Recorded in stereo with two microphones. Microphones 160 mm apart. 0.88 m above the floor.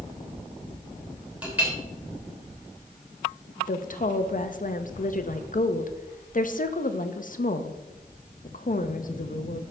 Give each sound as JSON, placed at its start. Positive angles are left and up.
{"t": 1.4, "sound": "a clink", "side_deg": -10, "distance_m": 3.0}
{"t": 3.7, "sound": "a woman speaking", "side_deg": 55, "distance_m": 0.7}